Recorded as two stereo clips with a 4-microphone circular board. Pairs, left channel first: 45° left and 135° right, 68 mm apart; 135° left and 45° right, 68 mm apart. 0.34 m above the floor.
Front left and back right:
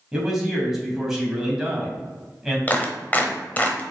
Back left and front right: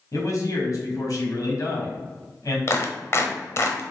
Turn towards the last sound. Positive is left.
turn(degrees=100)